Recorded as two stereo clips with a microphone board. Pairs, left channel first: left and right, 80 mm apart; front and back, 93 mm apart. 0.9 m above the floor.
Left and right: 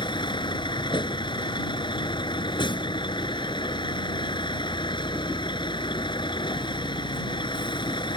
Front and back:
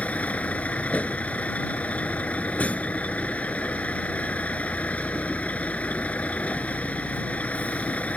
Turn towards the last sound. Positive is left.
turn(degrees=75)